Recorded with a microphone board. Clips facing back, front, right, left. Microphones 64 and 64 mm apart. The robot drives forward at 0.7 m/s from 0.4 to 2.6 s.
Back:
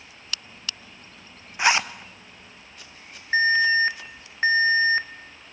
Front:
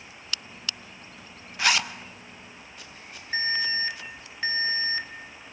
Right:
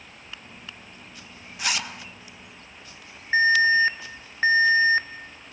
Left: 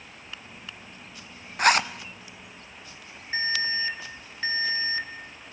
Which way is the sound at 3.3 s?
130° right.